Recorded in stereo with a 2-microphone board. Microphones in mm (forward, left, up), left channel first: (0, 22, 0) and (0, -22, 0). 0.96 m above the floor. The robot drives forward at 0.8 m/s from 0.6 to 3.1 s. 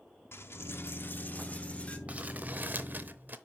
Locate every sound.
0.3 s a dropped coin: 65° left (ahead or behind), 0.8 m; by 2.0 s 30° left (ahead or behind), 1.5 m
2.1 s crumpling: 30° right (ahead or behind), 1.1 m; by 3.4 s 45° right (ahead or behind), 0.8 m